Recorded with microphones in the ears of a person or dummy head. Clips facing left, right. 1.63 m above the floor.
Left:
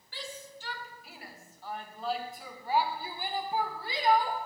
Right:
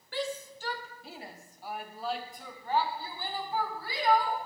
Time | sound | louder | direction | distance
0.1 | a shout | right 9 dB | 55° right (ahead or behind) | 1.4 m